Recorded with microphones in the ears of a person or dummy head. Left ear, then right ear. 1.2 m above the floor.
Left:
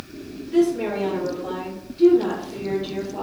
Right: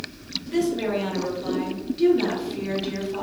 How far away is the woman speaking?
About 1.1 m.